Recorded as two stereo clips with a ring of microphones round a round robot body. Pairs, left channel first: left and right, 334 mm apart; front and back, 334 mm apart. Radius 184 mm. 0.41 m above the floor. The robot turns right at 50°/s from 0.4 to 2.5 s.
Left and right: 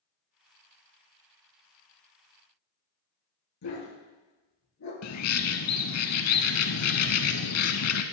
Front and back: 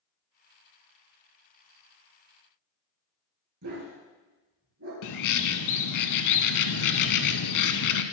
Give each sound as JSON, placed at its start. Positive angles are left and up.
{"t": 3.6, "sound": "a dog barking", "azimuth_deg": 130, "distance_m": 3.5}
{"t": 5.0, "sound": "a bird", "azimuth_deg": 40, "distance_m": 0.6}